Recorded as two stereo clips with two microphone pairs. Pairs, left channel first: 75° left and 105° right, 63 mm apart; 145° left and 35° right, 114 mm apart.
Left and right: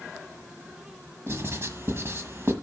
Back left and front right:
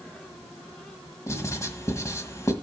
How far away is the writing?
About 1.5 m.